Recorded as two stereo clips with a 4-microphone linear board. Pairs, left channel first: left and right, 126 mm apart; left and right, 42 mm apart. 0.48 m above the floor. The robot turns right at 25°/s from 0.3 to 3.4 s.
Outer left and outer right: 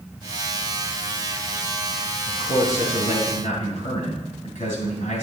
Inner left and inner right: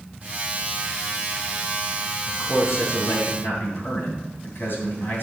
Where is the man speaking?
70° left (ahead or behind), 3 m.